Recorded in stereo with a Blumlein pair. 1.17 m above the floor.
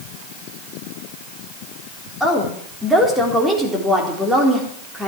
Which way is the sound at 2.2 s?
Straight ahead.